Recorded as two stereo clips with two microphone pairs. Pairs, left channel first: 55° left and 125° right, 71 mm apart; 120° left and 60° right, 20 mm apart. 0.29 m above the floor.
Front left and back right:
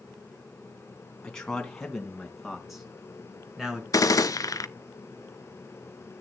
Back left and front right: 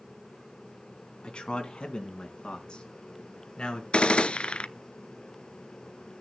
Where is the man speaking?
135° left, 3 m; by 3.8 s 160° left, 3.5 m.